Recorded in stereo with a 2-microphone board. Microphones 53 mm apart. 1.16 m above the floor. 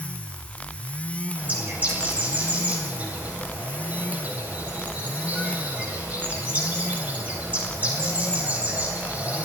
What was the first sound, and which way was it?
A bird, 30° right (ahead or behind).